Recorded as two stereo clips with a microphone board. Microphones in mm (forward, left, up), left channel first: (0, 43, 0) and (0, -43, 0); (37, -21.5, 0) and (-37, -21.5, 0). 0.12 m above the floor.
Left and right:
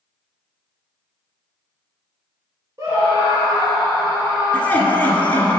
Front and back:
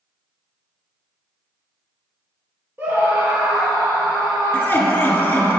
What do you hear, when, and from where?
2.8 s a scream: 125° right, 1.6 m; by 5.5 s 145° right, 3 m
4.5 s laughter: 35° left, 1.3 m